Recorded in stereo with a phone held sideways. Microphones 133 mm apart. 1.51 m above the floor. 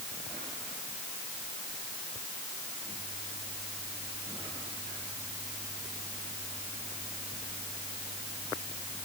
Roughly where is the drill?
No drill in this recording.